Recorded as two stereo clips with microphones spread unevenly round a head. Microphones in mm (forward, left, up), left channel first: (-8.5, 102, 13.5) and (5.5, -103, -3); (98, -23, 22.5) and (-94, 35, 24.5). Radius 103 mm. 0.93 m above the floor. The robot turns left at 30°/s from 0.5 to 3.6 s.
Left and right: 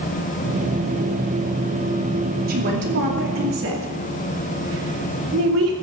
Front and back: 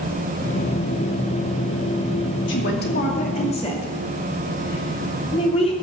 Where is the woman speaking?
45° right, 2.5 m; by 5.7 s 80° right, 2.5 m.